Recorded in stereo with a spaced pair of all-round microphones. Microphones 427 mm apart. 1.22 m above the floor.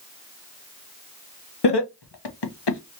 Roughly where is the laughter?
Left.